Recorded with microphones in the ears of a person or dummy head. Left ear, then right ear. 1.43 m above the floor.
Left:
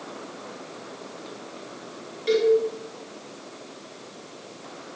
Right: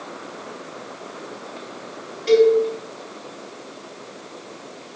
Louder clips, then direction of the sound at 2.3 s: Right 6 dB; centre (ahead or behind).